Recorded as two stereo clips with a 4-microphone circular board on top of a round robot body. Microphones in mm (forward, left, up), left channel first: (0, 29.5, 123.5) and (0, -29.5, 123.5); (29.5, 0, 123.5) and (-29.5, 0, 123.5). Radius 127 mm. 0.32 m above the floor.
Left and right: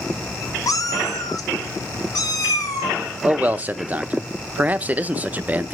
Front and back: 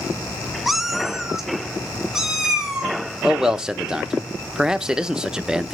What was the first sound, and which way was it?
A cat meowing, 95° left.